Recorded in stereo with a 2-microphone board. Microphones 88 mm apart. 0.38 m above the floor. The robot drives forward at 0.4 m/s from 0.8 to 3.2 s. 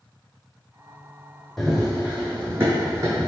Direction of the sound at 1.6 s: Centre (ahead or behind).